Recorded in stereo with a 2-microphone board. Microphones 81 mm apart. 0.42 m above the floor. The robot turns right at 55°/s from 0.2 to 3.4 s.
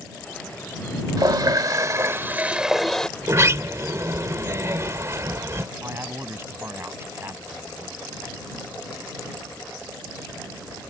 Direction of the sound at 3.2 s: 40° right (ahead or behind).